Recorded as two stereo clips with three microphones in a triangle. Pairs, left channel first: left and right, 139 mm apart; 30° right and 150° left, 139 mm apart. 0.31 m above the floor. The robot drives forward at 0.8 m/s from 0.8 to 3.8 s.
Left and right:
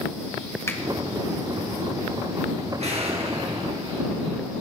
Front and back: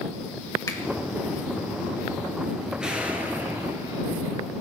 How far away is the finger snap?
About 1.7 m.